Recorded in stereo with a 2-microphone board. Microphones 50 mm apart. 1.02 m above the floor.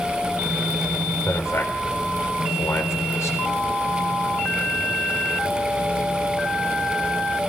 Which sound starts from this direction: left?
A man speaking, at 1.2 s.